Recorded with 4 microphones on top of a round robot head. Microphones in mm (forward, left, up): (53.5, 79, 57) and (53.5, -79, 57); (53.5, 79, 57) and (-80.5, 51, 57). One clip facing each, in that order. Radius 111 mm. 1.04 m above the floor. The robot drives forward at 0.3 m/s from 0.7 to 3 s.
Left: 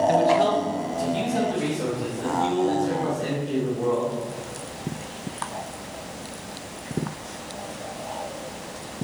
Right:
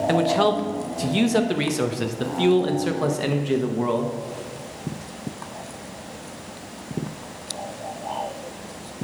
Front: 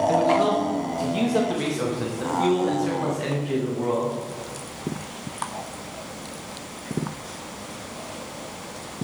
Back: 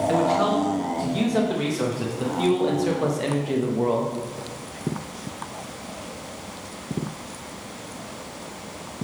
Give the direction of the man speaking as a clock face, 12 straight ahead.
2 o'clock.